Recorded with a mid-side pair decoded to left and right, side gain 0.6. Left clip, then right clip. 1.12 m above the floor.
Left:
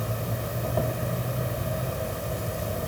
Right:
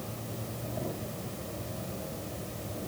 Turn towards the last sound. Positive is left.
turn(degrees=65)